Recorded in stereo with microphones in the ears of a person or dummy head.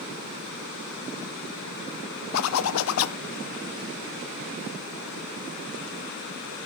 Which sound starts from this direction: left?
A zipper, at 2.3 s.